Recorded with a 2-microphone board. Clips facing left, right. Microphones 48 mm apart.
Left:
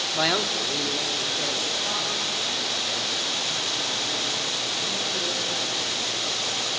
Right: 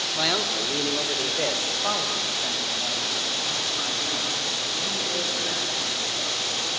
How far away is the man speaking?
About 1.1 m.